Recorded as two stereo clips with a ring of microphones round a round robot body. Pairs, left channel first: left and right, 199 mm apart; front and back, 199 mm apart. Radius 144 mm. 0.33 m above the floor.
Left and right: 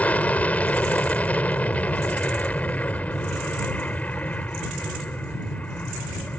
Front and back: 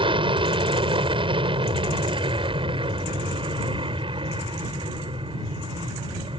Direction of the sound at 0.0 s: 165° left.